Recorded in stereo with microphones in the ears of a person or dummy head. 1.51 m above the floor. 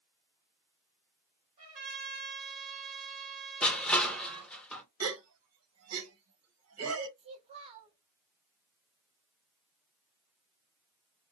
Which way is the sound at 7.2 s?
35° right (ahead or behind).